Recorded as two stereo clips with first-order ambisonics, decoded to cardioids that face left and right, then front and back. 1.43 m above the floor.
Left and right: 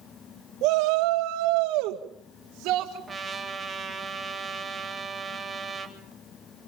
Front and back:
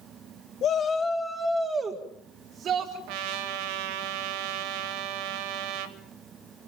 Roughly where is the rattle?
I don't hear a rattle.